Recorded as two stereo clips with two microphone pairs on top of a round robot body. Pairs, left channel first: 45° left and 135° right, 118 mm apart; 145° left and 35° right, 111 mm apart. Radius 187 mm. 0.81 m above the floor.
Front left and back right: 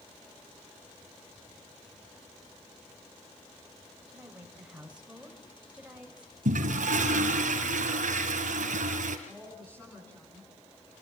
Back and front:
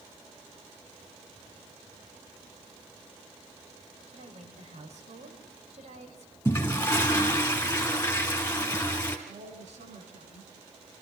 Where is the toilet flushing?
140° right, 2.5 m.